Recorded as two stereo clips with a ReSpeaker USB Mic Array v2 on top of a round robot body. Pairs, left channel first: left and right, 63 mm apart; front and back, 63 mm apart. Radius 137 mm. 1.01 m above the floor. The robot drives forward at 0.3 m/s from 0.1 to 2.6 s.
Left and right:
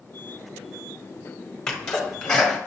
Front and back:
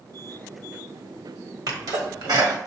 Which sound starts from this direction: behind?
A sneeze, at 1.7 s.